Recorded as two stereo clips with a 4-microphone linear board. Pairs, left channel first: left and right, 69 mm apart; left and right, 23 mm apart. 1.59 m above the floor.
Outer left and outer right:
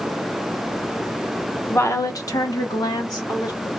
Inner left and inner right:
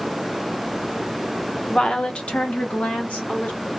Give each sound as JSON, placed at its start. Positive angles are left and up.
{"t": 1.7, "sound": "a woman speaking", "side_deg": 35, "distance_m": 0.6}